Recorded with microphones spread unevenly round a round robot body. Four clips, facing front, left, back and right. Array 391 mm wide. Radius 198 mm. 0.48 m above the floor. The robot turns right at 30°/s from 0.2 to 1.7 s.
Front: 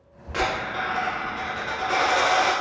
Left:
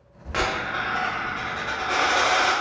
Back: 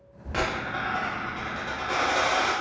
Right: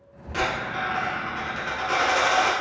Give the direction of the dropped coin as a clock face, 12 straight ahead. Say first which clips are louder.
Left 1 dB, front 3 dB; 7 o'clock.